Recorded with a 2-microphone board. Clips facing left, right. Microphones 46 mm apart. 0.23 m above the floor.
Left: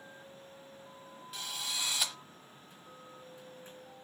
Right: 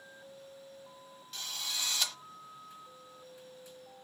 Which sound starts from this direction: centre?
A drill, at 1.3 s.